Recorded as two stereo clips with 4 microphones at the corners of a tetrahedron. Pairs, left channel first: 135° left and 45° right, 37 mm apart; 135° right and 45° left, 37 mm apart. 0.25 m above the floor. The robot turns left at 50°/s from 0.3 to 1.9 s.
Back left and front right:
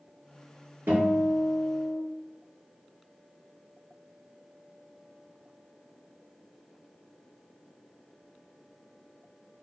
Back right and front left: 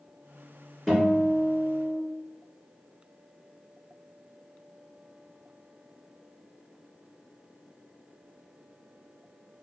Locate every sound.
0.9 s a guitar: 45° right, 1.7 m; by 2.0 s 100° right, 1.7 m